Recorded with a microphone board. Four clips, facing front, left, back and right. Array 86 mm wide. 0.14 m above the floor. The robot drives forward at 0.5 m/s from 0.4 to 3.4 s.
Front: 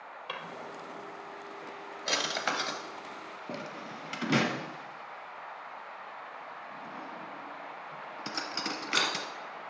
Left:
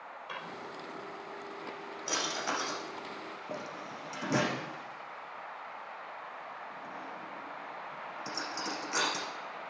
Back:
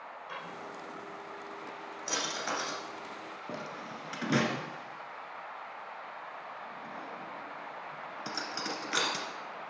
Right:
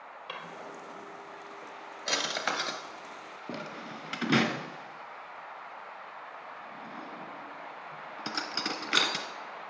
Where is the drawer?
25° right, 2.0 m; by 9.3 s 80° right, 1.1 m.